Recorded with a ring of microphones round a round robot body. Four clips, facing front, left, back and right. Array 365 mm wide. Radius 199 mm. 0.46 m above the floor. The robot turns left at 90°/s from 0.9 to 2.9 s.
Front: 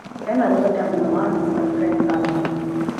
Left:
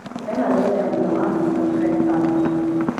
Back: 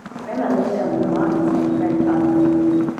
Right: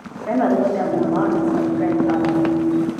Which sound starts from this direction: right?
A woman speaking, at 0.3 s.